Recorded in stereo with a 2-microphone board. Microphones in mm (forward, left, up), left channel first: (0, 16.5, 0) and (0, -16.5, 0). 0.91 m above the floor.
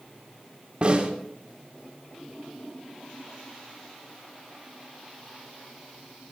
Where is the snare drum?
35° right (ahead or behind), 3 m.